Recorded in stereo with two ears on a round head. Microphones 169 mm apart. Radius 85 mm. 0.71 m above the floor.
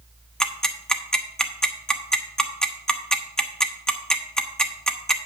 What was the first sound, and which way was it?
Ticking, 5° left (ahead or behind).